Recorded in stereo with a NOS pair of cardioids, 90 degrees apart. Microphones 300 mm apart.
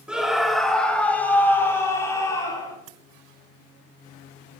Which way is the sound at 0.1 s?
5° right.